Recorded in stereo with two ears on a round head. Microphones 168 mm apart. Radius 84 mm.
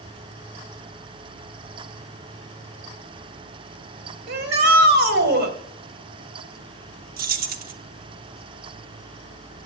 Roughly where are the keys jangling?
Right.